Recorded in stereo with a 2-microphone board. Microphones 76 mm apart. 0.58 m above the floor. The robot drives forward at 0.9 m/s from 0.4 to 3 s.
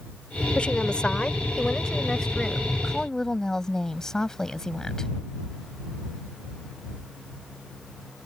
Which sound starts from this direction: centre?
A woman speaking, at 0.6 s.